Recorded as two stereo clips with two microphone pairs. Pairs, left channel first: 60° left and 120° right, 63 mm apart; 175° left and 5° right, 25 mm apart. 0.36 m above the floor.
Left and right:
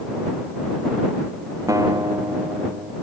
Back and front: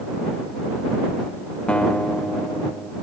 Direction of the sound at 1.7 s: 145° right.